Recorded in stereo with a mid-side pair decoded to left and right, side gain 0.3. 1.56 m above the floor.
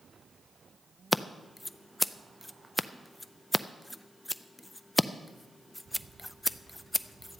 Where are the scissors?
10° left, 0.5 m.